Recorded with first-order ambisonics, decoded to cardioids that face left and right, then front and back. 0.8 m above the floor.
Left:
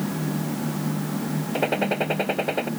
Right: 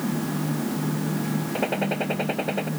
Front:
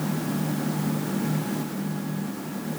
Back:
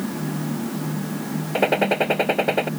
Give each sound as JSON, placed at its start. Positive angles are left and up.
{"t": 1.6, "sound": "a gunshot", "azimuth_deg": 170}